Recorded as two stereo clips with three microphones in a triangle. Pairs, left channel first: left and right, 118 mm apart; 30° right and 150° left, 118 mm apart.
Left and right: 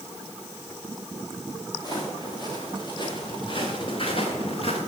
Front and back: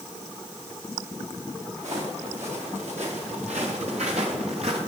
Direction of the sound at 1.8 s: 145° left.